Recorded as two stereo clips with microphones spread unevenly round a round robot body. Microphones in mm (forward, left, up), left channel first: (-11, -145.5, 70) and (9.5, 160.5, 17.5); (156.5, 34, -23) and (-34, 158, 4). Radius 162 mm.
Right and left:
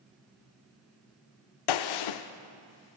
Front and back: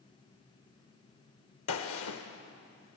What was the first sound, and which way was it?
A gunshot, 75° right.